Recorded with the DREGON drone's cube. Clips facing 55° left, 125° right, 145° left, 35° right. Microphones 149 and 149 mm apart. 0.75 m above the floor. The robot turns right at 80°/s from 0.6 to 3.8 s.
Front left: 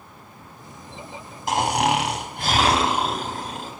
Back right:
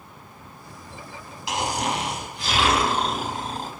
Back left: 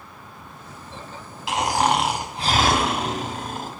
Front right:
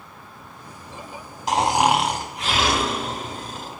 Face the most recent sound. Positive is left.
turn(degrees=-160)